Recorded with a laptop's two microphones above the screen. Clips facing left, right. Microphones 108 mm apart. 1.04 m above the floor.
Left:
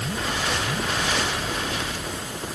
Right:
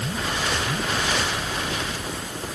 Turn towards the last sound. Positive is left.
No sound to turn to.